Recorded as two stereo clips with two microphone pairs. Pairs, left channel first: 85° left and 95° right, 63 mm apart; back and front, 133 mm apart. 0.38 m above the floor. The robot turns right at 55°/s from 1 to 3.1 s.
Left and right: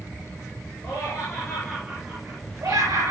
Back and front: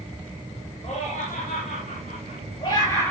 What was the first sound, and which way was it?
Laughter, 145° left.